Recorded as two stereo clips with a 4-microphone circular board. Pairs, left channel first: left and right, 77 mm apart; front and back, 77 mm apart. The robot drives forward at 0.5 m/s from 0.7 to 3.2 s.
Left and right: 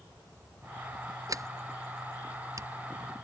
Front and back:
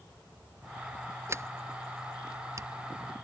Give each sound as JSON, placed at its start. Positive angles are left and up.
{"t": 1.3, "sound": "a sliding door", "azimuth_deg": -130}